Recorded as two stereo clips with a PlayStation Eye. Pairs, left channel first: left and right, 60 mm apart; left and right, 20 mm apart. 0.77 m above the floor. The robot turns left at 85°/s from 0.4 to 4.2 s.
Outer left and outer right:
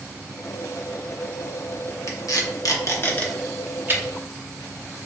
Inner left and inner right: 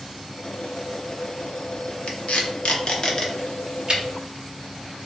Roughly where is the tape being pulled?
Left.